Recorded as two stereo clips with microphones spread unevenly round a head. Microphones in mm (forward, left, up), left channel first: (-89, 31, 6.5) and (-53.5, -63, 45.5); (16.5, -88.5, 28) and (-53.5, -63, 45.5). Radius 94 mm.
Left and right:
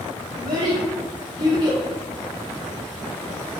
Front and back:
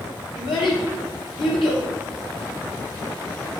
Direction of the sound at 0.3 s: 15° right.